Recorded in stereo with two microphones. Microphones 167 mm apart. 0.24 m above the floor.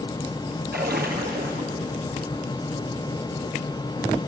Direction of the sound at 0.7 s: 70° right (ahead or behind).